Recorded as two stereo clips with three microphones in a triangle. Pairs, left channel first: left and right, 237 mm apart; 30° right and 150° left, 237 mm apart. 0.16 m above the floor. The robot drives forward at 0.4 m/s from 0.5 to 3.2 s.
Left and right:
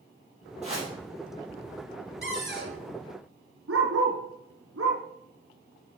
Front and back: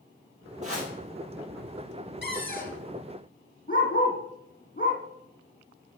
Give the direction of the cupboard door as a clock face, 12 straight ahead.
2 o'clock.